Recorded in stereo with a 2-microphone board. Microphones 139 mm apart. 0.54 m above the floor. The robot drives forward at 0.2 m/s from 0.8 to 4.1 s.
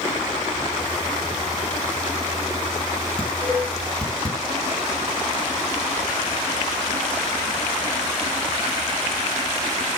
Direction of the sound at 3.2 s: 5° left (ahead or behind).